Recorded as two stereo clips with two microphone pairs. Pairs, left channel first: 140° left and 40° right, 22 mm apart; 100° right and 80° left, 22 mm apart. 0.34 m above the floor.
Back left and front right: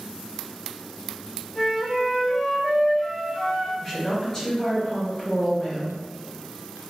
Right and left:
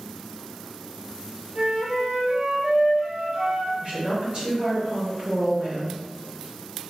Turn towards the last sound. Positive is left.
turn(degrees=80)